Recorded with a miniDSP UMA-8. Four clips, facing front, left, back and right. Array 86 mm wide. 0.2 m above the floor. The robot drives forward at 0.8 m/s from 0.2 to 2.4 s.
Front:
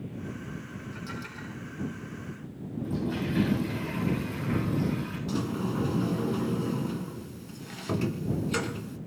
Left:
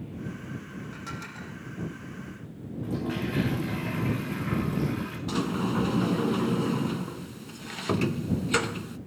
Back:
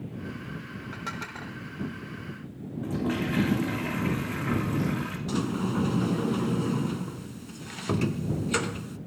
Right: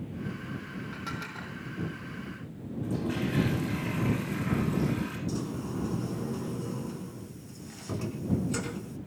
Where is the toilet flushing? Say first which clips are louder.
Even, back 2 dB; 175° left, 8.5 m.